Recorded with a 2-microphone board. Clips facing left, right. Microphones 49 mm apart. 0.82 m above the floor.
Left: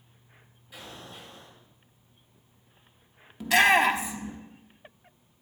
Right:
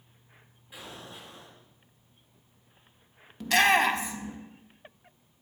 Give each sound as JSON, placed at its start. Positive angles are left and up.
{"t": 0.7, "sound": "an explosion", "side_deg": -20, "distance_m": 6.0}
{"t": 3.4, "sound": "a shout", "side_deg": 10, "distance_m": 1.0}